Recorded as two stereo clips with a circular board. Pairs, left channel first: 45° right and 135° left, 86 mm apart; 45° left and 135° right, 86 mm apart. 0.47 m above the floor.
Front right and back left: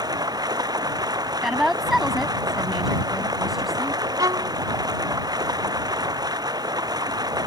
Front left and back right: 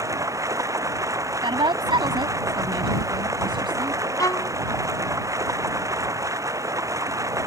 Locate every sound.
0.0 s running water: 175° left
1.4 s a woman speaking: 140° right
4.2 s a violin: 95° left